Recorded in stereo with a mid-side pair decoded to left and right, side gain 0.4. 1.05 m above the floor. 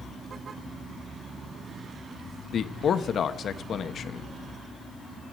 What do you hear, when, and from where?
2.5 s a man speaking: 60° left, 0.8 m